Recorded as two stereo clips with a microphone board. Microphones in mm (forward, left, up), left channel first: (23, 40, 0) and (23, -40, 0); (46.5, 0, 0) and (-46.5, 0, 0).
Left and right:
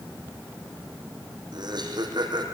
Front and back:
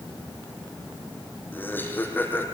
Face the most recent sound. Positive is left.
turn(degrees=-70)